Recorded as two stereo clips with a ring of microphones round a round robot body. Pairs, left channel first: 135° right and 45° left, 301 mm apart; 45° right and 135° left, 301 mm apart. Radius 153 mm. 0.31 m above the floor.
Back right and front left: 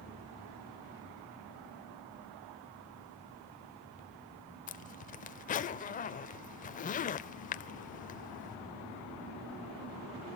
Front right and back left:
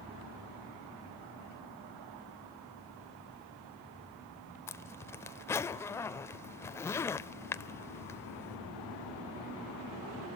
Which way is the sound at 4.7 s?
115° right.